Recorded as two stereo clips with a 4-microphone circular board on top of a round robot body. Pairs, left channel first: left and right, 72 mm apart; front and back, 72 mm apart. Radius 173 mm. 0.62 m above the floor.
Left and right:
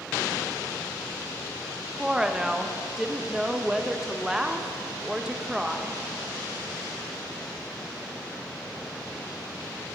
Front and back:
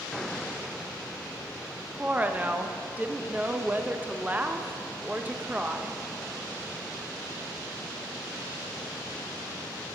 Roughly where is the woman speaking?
Behind right.